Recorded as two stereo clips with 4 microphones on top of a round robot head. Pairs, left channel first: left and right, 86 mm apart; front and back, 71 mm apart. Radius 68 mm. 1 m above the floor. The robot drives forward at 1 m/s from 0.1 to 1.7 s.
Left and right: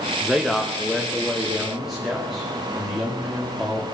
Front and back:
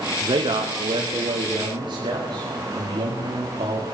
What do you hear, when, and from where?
0.2 s a man speaking: 175° right, 0.9 m; by 3.9 s straight behind, 2.5 m